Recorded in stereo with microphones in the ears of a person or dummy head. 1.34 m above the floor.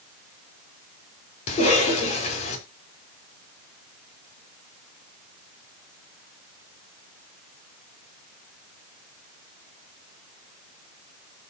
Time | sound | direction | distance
1.5 | a cough | 35° left (ahead or behind) | 5 m